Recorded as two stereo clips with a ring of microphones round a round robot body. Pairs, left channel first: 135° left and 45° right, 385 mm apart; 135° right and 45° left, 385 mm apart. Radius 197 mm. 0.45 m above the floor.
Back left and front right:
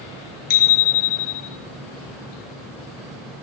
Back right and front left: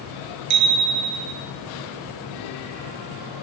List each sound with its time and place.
0.5 s a bicycle bell: 95° left, 6 m